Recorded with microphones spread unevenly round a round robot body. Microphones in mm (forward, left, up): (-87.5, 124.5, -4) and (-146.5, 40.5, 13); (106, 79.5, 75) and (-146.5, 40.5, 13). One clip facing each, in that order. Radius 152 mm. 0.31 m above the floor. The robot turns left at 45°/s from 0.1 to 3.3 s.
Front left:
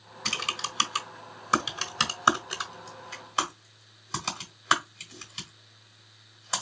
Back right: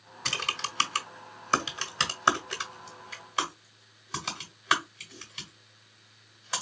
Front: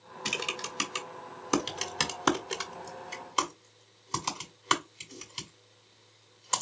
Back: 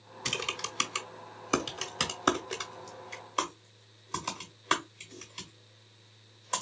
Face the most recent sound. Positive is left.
turn(degrees=-15)